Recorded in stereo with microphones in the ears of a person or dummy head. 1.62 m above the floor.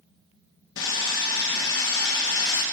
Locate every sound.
0.8 s sawing: 85° left, 1.8 m